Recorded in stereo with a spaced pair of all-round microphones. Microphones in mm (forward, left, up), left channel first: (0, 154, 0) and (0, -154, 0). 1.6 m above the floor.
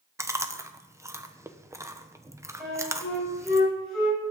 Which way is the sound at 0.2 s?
10° right (ahead or behind).